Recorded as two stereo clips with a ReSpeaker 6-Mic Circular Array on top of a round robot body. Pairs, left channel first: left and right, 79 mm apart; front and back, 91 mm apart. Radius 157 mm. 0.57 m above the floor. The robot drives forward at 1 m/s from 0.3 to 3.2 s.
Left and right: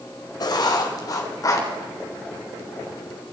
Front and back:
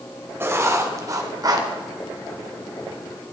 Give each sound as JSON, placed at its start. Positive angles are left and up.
{"t": 0.4, "sound": "writing", "azimuth_deg": 115, "distance_m": 3.0}